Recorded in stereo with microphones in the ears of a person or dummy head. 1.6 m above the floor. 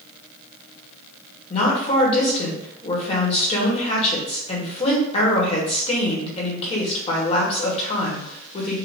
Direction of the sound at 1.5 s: 30° left (ahead or behind).